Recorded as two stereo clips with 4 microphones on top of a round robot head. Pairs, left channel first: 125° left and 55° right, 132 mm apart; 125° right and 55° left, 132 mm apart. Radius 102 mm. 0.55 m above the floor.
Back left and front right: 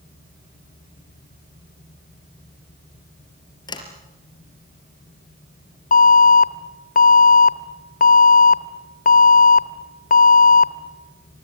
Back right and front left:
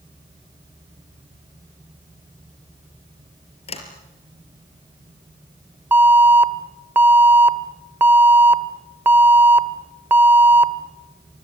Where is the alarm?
130° left, 1.3 m.